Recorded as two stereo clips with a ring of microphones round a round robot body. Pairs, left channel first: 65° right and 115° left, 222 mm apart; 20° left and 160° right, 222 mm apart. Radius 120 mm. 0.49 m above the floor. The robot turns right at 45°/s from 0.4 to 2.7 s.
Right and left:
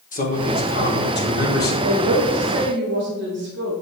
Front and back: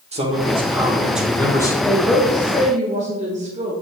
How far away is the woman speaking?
About 1.5 m.